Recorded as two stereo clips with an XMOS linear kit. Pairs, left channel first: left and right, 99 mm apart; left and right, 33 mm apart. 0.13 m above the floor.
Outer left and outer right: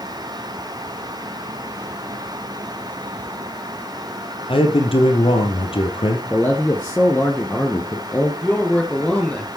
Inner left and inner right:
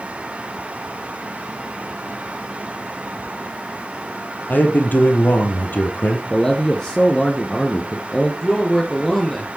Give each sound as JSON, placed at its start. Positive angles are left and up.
{"t": 4.5, "sound": "a man speaking", "side_deg": 65, "distance_m": 3.0}
{"t": 6.3, "sound": "a man speaking", "side_deg": 15, "distance_m": 2.0}
{"t": 8.4, "sound": "a man speaking", "side_deg": 15, "distance_m": 2.5}